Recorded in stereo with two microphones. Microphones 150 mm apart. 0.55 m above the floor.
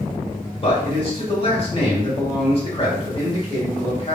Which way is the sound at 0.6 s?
40° left (ahead or behind).